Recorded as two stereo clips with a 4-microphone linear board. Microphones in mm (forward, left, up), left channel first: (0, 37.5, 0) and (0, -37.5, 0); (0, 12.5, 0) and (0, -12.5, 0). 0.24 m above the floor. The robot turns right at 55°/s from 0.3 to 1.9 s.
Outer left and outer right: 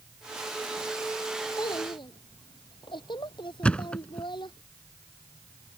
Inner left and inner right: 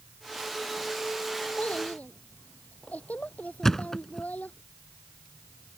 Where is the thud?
15° left (ahead or behind).